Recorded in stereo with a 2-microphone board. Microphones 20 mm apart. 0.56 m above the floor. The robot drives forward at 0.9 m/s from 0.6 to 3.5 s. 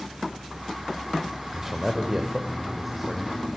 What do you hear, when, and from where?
1.5 s a man speaking: 15° right (ahead or behind), 1.7 m; by 3.5 s 5° right (ahead or behind), 3.5 m